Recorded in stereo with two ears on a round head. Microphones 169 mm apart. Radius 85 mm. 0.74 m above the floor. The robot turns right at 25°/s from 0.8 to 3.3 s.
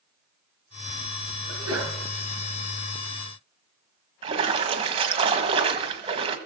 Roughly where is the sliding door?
No sliding door in this recording.